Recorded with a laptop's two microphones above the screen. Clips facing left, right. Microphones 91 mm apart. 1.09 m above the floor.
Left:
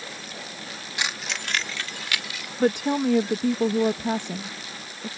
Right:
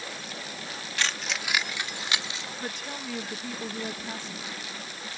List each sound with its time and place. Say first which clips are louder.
1.0 s keys jangling: even; 20° left (ahead or behind); by 2.5 s 30° right (ahead or behind)
2.6 s a woman speaking: left 18 dB; 75° left (ahead or behind)